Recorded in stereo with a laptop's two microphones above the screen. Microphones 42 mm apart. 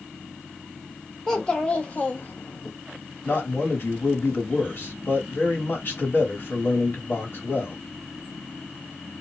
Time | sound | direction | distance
1.3 | a child speaking | 15° left (ahead or behind) | 1.1 m
3.2 | a man speaking | 50° left (ahead or behind) | 1.5 m